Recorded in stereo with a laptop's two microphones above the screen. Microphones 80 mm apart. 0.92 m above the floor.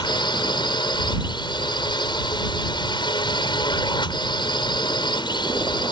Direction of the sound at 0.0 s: 75° left (ahead or behind).